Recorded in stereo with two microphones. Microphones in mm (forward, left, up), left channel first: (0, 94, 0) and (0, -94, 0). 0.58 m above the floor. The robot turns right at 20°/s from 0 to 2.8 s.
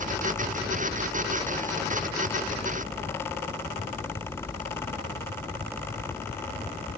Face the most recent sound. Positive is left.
No sound to turn to.